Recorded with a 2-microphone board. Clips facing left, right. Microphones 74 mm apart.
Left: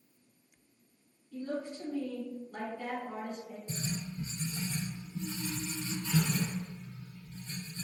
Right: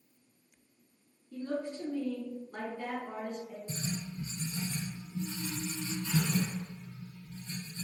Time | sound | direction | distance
1.3 | a woman speaking | 40° right (ahead or behind) | 1.6 m
3.7 | writing | 20° right (ahead or behind) | 1.9 m